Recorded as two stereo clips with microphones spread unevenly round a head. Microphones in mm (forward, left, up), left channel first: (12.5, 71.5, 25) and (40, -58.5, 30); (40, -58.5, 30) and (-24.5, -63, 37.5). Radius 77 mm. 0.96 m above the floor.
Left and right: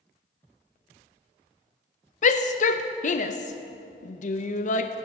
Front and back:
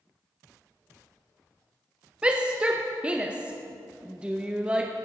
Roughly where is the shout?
Left.